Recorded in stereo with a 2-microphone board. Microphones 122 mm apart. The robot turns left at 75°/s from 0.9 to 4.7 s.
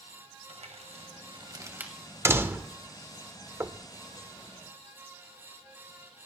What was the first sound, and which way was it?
Crumpling, 65° right (ahead or behind).